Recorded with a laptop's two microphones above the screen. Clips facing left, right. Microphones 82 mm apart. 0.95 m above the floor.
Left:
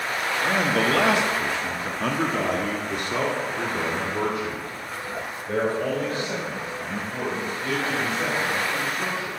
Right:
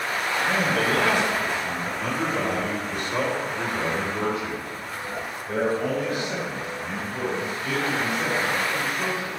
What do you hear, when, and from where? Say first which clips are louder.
0.4 s a man speaking: left 2 dB; 55° left (ahead or behind), 1.2 m; by 9.3 s 25° left (ahead or behind), 5.5 m